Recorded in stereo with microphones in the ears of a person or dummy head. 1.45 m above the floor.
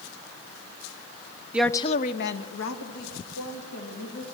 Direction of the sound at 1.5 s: 5° right (ahead or behind).